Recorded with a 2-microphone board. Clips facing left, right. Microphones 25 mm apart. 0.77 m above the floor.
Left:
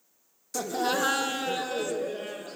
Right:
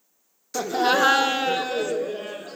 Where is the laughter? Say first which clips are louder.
Right 7 dB; 25° right (ahead or behind), 0.7 m; by 2.6 s 10° right (ahead or behind), 1.2 m.